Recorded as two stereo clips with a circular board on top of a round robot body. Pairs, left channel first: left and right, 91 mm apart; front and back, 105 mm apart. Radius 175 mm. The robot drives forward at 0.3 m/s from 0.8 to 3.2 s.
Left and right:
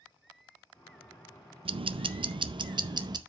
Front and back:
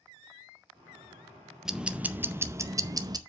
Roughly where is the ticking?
Right.